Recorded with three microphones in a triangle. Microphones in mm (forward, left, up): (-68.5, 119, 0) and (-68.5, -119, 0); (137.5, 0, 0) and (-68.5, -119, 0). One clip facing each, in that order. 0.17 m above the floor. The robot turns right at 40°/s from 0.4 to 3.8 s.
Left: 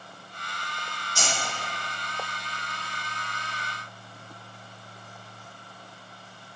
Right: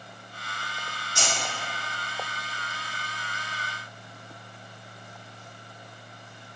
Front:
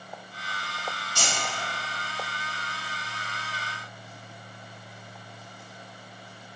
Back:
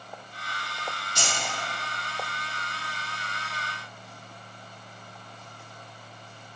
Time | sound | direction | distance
1.1 | keys jangling | 20° right | 1.8 m